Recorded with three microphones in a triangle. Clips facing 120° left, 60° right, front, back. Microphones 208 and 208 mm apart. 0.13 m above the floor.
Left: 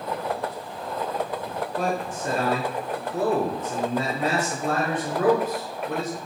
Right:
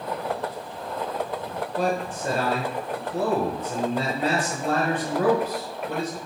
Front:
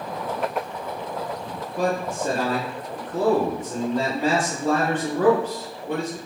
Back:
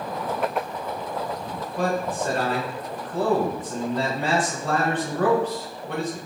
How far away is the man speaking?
About 1.7 m.